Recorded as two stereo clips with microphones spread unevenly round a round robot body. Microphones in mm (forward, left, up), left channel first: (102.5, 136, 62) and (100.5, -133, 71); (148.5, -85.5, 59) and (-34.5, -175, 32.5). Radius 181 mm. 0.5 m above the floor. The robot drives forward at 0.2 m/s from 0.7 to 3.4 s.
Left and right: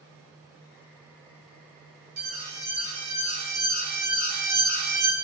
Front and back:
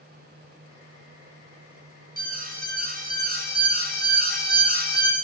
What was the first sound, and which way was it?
An alarm, 110° right.